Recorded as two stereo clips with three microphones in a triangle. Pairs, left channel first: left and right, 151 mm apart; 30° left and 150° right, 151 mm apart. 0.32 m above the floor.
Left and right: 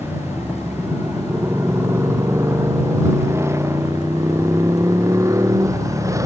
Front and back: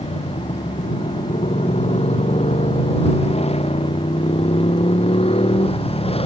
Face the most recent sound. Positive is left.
turn(degrees=-20)